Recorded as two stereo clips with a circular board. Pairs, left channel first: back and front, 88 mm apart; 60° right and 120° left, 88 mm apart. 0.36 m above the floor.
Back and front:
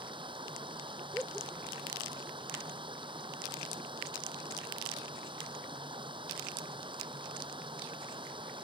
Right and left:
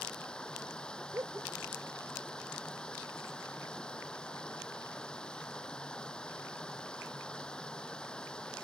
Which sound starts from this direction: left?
Laughter, at 1.1 s.